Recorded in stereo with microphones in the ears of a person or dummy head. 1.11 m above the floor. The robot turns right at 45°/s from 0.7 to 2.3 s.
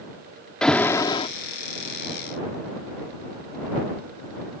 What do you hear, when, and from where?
0.6 s an alarm: centre (ahead or behind); by 1.3 s 30° left (ahead or behind)